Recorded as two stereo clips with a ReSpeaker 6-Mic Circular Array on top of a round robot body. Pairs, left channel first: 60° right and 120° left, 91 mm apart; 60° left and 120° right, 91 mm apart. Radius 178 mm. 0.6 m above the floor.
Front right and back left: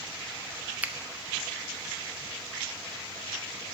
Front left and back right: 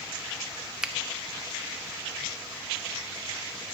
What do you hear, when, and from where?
0.8 s a finger snap: 165° left, 0.8 m